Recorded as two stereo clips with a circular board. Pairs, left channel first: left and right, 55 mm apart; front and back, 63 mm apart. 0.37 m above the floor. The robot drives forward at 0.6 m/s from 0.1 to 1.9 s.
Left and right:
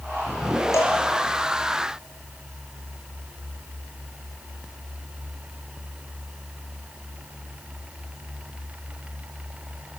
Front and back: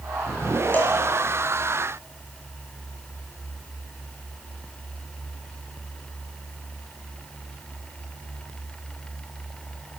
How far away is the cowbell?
About 4 m.